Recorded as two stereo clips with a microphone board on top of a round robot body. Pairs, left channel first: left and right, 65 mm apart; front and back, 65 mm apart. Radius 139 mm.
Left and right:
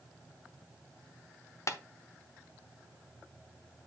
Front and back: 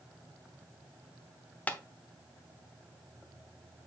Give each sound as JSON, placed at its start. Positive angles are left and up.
{"t": 1.7, "sound": "tapping", "azimuth_deg": 65, "distance_m": 1.3}